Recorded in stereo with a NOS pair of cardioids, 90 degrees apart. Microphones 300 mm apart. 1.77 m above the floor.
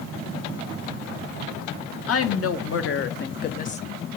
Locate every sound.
2.1 s a woman speaking: 55° left, 1.2 m; by 3.8 s 30° left, 0.5 m